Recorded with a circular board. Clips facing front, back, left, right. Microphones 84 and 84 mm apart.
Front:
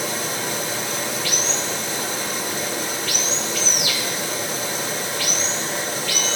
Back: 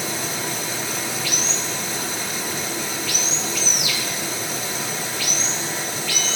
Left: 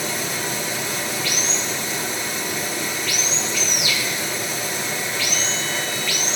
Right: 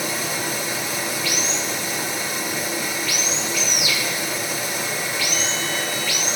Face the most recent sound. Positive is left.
turn(degrees=-10)